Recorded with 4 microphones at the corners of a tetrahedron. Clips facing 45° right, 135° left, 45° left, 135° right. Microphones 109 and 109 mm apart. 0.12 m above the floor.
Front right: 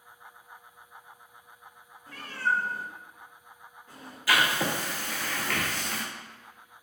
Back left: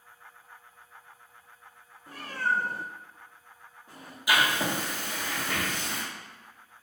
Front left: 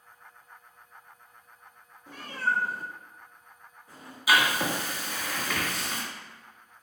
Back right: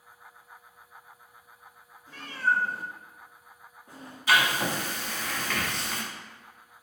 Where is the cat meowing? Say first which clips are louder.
Even, back right 2 dB; 70° left, 0.8 m; by 4.2 s 160° right, 1.8 m.